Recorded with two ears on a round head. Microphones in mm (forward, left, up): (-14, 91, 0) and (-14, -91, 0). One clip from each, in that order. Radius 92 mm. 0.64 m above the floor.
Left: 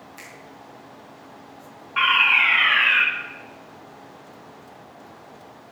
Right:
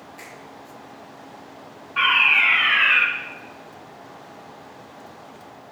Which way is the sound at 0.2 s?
55° left (ahead or behind).